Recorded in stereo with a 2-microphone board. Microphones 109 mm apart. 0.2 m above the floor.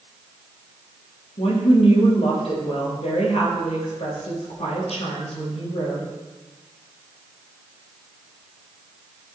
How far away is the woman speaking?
About 4.5 m.